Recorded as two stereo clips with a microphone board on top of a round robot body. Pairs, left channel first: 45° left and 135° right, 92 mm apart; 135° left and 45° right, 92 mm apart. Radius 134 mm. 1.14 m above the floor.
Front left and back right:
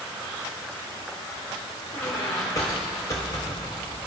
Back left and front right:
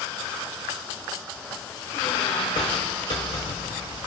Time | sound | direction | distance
1.9 | a squeak | 100° left | 0.9 m